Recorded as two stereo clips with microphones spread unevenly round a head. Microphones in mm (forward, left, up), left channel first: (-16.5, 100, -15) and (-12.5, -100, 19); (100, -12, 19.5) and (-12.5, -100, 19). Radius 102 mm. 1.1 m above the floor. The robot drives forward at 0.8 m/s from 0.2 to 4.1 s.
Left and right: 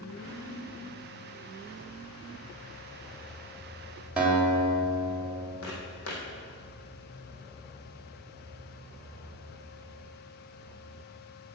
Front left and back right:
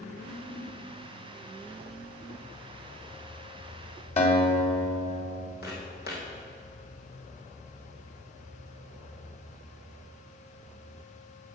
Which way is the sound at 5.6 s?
65° left.